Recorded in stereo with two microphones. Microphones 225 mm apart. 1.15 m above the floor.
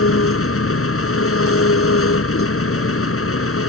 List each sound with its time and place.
0.0 s an engine running: 85° left